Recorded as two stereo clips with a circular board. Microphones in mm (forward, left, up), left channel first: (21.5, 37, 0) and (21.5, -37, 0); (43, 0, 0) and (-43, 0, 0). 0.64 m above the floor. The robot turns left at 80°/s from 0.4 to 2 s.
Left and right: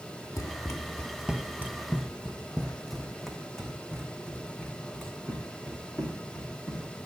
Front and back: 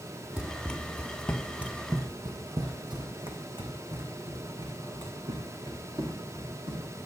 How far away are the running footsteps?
About 0.9 m.